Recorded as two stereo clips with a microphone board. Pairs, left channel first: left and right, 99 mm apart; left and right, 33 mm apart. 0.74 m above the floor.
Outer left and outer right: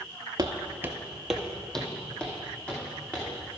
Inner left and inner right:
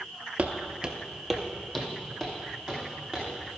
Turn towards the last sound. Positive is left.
turn(degrees=15)  # may be behind; listen again after turning